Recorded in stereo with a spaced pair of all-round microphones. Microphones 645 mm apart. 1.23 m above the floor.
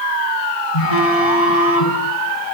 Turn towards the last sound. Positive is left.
turn(degrees=65)  # may be behind; listen again after turning